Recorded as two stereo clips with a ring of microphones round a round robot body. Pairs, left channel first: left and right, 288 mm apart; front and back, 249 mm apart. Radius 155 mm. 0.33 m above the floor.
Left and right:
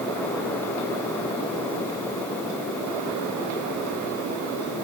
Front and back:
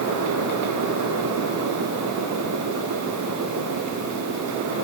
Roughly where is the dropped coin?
I don't hear a dropped coin.